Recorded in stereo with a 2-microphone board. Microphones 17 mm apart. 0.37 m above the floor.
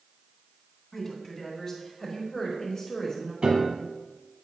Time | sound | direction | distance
0.9 | a woman speaking | 25° left (ahead or behind) | 3.5 m
3.4 | a piano | 65° right (ahead or behind) | 1.6 m